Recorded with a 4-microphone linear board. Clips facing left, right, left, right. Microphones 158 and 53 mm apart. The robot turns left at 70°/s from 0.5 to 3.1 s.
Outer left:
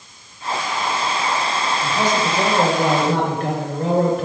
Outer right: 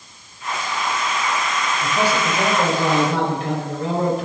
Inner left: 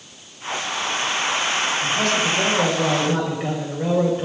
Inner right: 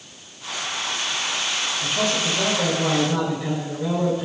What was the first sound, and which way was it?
A man speaking, 150° right.